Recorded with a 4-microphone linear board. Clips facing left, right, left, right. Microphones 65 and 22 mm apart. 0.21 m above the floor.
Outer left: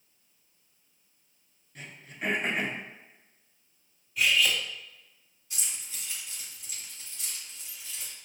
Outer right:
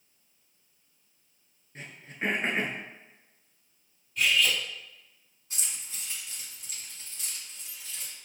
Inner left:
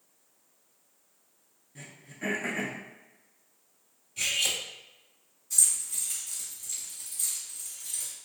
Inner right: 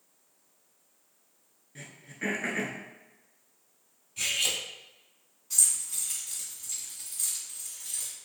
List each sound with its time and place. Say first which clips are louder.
1.8 s throat clearing: outer right 3 dB, inner right 2 dB; 35° right (ahead or behind), 0.7 m
4.2 s cutlery clinking: even, inner left 1 dB; 5° left (ahead or behind), 0.6 m
5.5 s keys jangling: even, even; 40° right (ahead or behind), 1.6 m